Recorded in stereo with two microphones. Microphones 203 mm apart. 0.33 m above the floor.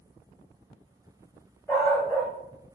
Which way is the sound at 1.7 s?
10° left (ahead or behind).